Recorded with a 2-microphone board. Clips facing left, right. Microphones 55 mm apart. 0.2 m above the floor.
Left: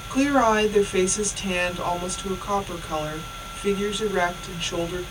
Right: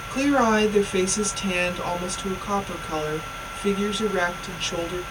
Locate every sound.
0.1 s a woman speaking: 10° left (ahead or behind), 1.1 m